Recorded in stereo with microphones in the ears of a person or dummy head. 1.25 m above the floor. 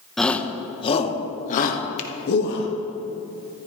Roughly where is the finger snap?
Left.